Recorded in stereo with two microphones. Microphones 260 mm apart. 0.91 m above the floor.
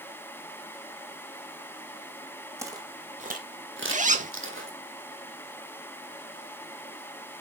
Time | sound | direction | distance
2.6 | footsteps | 10° right (ahead or behind) | 1.9 m
3.9 | a zipper | 30° right (ahead or behind) | 0.9 m